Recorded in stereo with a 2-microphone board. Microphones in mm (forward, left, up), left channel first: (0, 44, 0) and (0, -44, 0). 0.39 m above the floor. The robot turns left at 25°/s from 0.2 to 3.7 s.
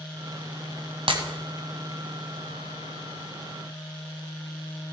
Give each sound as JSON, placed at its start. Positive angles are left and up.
{"t": 1.1, "sound": "breaking glass", "side_deg": -70, "distance_m": 1.6}